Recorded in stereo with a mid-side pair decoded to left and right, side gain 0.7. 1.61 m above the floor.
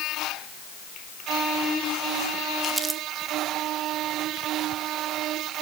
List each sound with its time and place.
2.6 s crumpling: 15° right, 2.5 m